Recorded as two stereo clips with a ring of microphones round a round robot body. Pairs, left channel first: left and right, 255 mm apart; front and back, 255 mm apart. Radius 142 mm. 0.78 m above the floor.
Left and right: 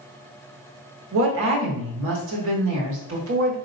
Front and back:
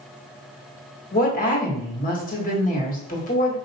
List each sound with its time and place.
1.1 s a woman speaking: 55° right, 1.6 m